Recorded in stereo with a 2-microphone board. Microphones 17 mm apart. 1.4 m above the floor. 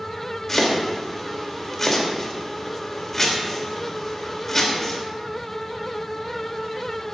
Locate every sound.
0.5 s chopping: 25° left (ahead or behind), 2.5 m